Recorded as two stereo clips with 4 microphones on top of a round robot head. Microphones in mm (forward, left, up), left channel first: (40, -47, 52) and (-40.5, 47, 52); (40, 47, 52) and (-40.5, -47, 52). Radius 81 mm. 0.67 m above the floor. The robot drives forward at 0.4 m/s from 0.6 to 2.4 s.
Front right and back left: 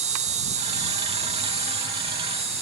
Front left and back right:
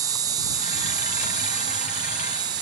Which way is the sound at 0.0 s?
165° left.